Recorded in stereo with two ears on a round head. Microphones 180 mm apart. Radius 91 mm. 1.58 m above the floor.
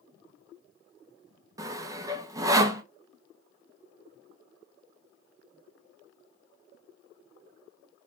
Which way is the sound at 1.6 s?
15° right (ahead or behind).